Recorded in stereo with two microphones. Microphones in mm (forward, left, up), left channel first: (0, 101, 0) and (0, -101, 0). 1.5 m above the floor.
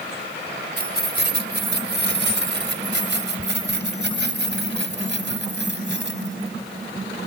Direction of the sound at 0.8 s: 55° right (ahead or behind).